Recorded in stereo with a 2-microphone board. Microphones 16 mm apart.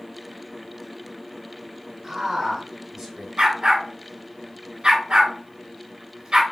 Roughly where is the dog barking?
Right.